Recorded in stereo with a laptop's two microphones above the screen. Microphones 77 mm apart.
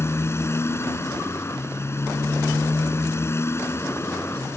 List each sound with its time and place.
0.0 s a motorcycle: 35° left (ahead or behind)